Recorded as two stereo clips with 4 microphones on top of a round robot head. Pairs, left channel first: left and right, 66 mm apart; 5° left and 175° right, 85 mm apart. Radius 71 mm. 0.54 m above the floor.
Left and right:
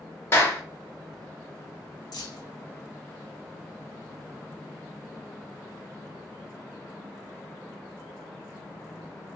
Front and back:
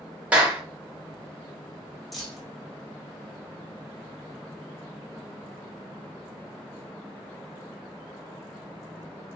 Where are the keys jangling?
95° left, 1.2 m.